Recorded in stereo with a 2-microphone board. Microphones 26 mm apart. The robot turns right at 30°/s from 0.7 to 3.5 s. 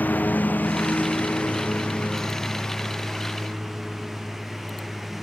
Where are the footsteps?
No footsteps in this recording.